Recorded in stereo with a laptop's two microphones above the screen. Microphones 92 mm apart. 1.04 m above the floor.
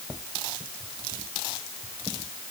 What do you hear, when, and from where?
Only background noise.